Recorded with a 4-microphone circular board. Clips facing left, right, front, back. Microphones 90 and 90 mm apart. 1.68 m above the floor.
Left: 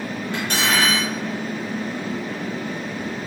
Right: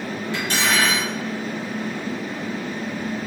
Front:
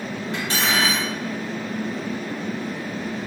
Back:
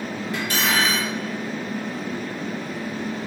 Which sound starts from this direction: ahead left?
Cutlery clinking, at 0.3 s.